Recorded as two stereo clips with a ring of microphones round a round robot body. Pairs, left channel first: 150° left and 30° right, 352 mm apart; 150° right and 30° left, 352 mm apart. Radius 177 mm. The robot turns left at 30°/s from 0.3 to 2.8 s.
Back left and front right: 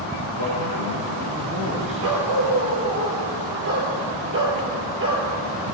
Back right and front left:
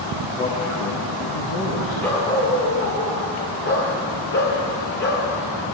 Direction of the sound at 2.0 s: 65° right.